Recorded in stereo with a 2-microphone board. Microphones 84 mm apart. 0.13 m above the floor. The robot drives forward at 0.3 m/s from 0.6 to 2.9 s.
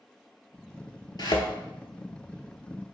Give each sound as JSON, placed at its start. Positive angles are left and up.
{"t": 1.2, "sound": "a thud", "side_deg": 55, "distance_m": 0.6}